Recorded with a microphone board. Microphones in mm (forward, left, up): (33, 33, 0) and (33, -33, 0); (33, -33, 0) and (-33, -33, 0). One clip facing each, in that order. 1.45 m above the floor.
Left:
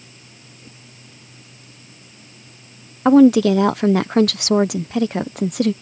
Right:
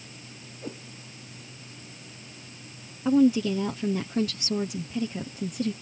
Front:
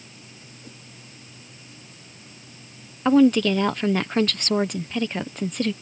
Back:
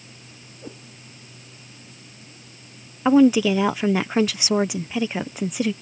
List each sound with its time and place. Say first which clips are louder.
0.6 s a whoosh: right 11 dB, back 9 dB; 130° right
3.0 s a woman speaking: left 10 dB, back 1 dB; 100° left